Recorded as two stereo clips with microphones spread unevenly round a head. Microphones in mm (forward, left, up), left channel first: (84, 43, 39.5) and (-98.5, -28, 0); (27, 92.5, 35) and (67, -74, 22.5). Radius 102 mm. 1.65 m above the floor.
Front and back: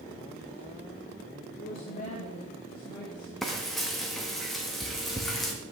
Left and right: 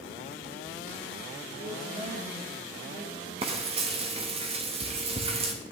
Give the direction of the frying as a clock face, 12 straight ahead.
2 o'clock.